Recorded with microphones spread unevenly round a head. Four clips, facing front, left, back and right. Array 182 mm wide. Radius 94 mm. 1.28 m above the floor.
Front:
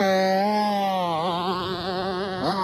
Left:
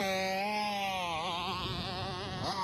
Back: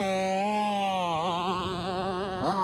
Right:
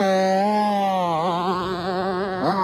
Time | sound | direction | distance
0.0 | a motorcycle | 55° right | ?